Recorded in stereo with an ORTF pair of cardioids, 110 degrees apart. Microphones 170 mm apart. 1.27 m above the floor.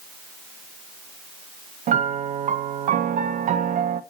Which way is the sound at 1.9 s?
45° right.